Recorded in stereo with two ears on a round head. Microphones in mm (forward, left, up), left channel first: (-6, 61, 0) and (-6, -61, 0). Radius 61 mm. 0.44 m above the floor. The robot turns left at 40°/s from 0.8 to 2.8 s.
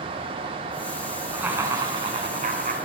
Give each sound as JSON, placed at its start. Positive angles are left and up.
{"t": 1.3, "sound": "laughter", "azimuth_deg": -10, "distance_m": 4.5}